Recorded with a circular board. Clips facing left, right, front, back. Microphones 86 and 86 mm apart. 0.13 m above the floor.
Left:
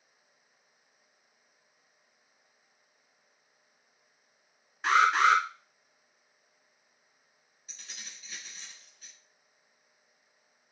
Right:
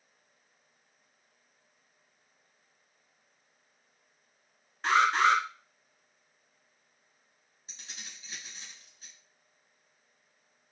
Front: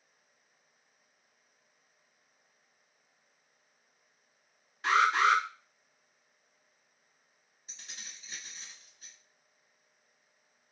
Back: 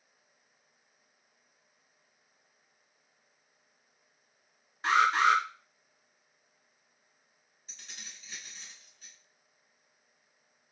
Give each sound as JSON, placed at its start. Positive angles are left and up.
{"t": 4.8, "sound": "an alarm", "azimuth_deg": 170, "distance_m": 1.2}
{"t": 7.7, "sound": "keys jangling", "azimuth_deg": -60, "distance_m": 1.1}